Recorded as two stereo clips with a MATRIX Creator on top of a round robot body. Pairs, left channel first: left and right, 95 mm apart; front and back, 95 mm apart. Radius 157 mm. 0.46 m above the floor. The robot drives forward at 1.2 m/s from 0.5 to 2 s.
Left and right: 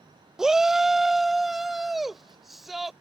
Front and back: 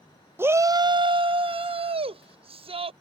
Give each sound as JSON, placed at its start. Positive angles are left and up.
{"t": 0.4, "sound": "a shout", "azimuth_deg": -165}